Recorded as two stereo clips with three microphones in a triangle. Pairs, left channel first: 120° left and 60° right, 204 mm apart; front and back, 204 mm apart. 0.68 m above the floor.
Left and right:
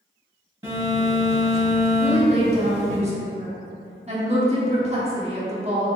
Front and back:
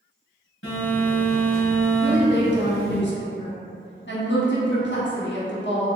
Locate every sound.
0.6 s a phone buzzing: 15° left, 1.7 m
2.0 s a woman speaking: 10° right, 0.9 m